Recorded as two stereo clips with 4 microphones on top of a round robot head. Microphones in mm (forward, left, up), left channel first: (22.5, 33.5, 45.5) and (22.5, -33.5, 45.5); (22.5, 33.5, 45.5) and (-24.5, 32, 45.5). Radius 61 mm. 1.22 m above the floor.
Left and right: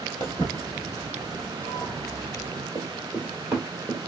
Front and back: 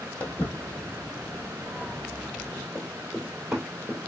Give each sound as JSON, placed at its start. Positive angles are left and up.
{"t": 0.2, "sound": "footsteps", "azimuth_deg": 25, "distance_m": 1.5}
{"t": 2.8, "sound": "running footsteps", "azimuth_deg": -70, "distance_m": 1.3}